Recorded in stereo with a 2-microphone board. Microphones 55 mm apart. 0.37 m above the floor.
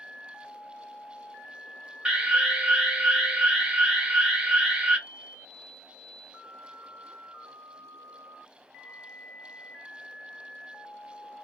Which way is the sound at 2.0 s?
15° right (ahead or behind).